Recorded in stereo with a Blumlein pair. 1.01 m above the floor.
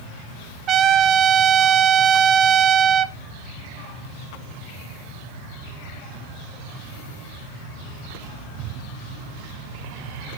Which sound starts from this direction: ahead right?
A trumpet, at 0.7 s.